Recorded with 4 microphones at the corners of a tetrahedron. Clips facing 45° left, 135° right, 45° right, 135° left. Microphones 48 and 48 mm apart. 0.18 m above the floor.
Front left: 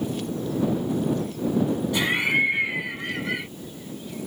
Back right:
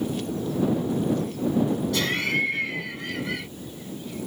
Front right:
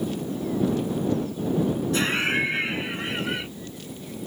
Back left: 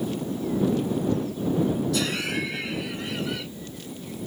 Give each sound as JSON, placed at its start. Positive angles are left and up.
{"t": 1.9, "sound": "laughter", "azimuth_deg": -15}